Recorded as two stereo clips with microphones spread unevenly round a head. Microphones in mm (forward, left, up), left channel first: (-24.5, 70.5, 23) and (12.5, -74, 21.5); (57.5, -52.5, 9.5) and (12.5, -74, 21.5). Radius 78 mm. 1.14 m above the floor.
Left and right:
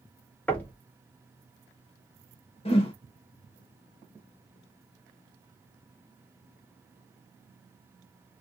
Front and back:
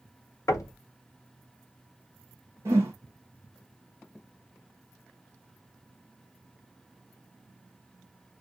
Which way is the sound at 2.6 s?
150° left.